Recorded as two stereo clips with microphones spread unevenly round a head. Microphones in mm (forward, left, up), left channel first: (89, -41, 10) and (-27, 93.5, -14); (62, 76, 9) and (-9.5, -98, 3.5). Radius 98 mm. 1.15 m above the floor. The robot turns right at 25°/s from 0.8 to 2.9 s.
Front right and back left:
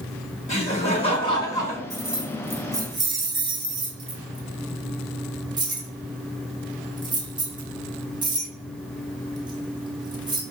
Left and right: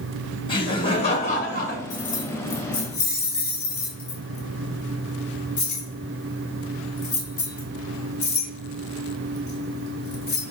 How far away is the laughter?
About 1.6 m.